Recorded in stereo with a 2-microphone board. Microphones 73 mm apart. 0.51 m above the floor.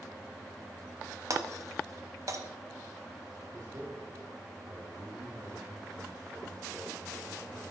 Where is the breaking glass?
50° right (ahead or behind), 1.0 m.